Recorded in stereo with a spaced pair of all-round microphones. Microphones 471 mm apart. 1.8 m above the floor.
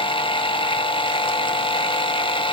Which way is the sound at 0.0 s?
10° left (ahead or behind).